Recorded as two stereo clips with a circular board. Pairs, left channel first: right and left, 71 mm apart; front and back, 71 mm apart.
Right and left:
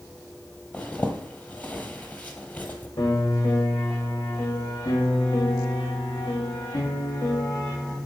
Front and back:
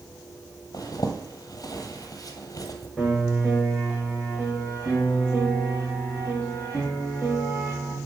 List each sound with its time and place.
0.7 s a zipper: 25° right, 1.0 m
3.0 s a piano: 95° right, 3 m